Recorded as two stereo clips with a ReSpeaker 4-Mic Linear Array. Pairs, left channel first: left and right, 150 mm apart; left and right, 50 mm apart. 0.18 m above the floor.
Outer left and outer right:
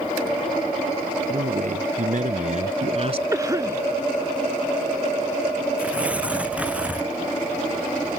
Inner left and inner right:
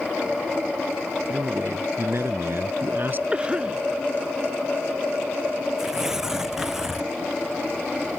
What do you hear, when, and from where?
1.3 s a man speaking: 65° right (ahead or behind); by 3.2 s 40° right (ahead or behind)
3.3 s a cough: 20° right (ahead or behind)
5.8 s tearing paper: 10° right (ahead or behind)